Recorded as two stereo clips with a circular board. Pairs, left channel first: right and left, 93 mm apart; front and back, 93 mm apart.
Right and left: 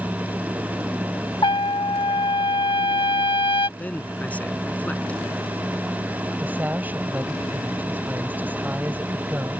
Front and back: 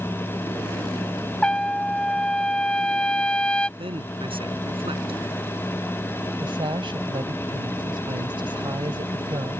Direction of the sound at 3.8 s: 165° right.